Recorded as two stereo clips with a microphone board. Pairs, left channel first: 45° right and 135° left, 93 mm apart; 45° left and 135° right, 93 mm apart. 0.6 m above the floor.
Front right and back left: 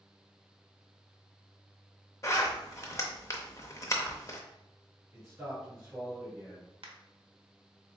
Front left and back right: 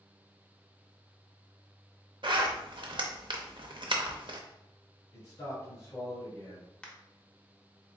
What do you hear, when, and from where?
2.2 s a zipper: 105° right, 0.7 m
5.1 s a man speaking: 80° left, 1.7 m
6.8 s a crack: 125° left, 0.9 m